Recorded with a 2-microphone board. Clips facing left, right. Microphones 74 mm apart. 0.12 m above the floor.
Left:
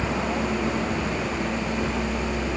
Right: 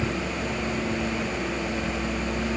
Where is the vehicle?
65° left (ahead or behind); by 2.6 s 85° left.